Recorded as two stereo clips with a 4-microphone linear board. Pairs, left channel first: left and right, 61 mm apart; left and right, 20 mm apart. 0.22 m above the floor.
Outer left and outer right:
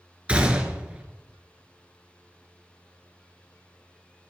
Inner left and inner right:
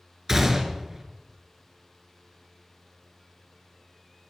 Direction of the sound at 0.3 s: 20° right (ahead or behind).